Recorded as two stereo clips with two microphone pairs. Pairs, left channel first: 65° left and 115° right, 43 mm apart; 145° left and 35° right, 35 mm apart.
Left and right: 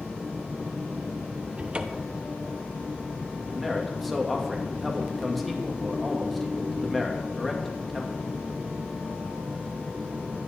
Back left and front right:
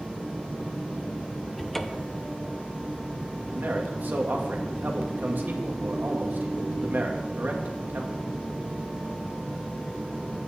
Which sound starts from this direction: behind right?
A cupboard door, at 1.6 s.